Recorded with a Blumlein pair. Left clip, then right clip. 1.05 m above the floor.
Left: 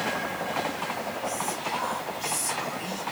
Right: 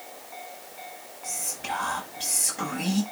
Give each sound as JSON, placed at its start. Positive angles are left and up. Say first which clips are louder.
{"t": 1.2, "sound": "whispering", "louder": "even", "azimuth_deg": -55, "distance_m": 7.0}